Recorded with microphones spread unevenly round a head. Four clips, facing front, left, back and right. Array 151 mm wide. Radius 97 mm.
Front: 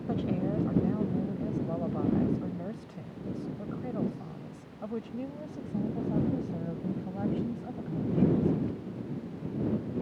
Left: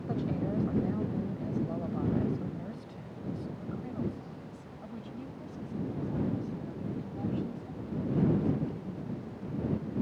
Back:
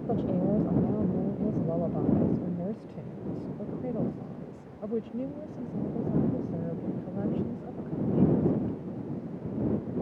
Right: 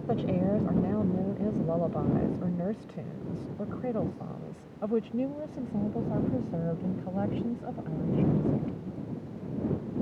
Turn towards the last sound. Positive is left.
turn(degrees=-100)